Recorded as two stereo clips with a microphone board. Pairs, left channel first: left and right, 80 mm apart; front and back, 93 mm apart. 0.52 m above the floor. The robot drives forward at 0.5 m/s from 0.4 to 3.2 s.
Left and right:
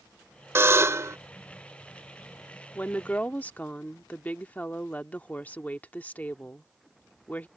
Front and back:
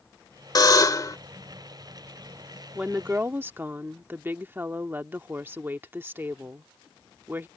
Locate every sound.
0.6 s a buzzer: 35° right; by 1.2 s 45° right
2.8 s a woman speaking: 120° left; by 7.5 s 140° left